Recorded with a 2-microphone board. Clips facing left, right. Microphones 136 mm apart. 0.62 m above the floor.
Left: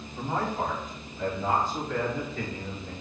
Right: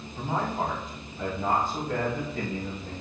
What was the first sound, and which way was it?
A man speaking, 10° right (ahead or behind).